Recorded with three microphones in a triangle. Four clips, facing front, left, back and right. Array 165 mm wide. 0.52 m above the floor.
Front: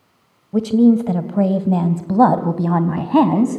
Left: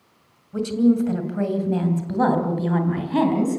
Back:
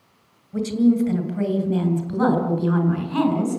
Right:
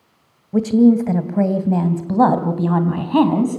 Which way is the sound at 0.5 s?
50° right.